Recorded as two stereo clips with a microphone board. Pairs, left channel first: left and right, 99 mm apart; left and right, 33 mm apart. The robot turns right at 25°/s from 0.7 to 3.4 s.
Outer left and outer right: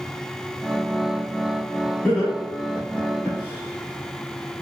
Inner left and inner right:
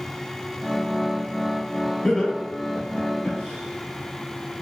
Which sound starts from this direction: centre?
Laughter, at 2.0 s.